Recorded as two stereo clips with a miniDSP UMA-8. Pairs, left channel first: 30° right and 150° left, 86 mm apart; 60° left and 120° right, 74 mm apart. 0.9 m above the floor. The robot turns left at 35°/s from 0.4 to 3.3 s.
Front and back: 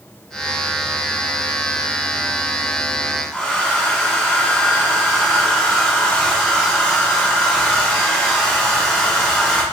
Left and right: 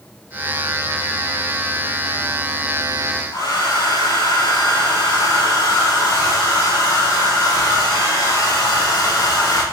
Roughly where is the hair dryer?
Ahead left.